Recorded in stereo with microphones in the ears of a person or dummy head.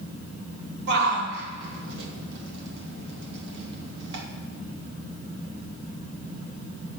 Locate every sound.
0.9 s a shout: 70° right (ahead or behind), 2.5 m